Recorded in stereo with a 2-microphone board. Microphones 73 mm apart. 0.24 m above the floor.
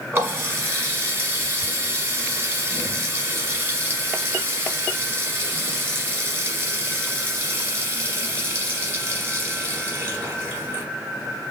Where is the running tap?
30° right (ahead or behind), 1.2 m.